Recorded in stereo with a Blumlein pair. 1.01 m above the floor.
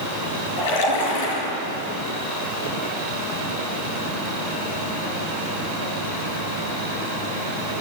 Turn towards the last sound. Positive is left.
turn(degrees=55)